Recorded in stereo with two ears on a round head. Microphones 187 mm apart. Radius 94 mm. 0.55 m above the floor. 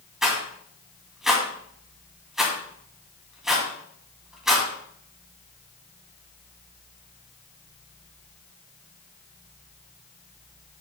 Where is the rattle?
Centre (ahead or behind), 2.5 m.